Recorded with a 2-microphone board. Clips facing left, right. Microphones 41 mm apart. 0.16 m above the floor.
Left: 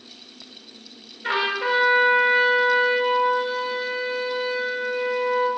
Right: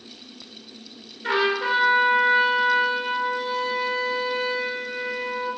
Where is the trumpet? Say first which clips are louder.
Right 1 dB; 5° left (ahead or behind), 2.5 m.